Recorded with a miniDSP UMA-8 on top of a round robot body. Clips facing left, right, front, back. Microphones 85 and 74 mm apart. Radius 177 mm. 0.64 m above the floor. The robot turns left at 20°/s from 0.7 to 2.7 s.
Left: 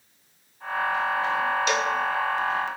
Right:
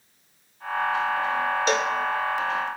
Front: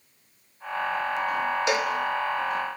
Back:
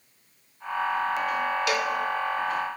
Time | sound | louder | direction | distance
1.7 | a cowbell | right 1 dB, front 1 dB | 55° right | 1.4 m